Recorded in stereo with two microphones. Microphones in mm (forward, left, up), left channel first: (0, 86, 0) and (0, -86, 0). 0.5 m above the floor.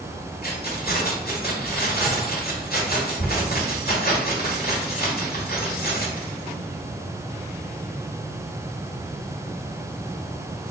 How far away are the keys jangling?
About 1.3 m.